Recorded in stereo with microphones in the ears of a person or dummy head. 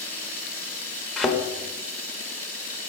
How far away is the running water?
About 3 m.